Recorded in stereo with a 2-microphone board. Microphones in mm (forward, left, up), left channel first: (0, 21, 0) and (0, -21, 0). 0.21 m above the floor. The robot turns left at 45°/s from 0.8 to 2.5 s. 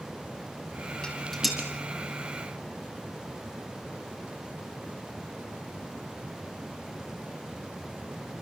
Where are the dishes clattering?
15° left (ahead or behind), 4.5 m; by 1.6 s 5° right (ahead or behind), 4.5 m.